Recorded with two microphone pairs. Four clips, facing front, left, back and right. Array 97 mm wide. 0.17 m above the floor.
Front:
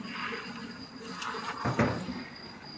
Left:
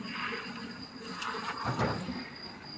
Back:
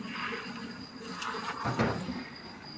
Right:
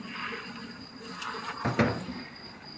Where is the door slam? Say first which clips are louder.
Right 6 dB, front 2 dB; 65° right, 2.5 m.